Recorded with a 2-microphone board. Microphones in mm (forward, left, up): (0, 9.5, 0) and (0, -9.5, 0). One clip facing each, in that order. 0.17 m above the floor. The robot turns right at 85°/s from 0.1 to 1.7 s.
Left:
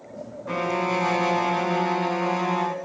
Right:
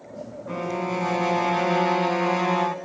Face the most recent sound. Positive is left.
turn(degrees=-165)